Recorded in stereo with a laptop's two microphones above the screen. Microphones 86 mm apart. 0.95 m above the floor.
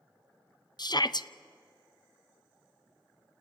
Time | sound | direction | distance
0.8 | a shout | 55° left (ahead or behind) | 0.7 m